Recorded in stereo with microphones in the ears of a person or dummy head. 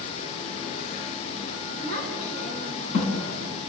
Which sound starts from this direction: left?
A child speaking, at 1.8 s.